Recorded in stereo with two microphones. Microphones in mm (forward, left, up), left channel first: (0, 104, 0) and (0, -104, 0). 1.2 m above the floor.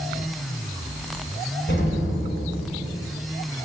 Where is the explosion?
60° left (ahead or behind), 5.5 m.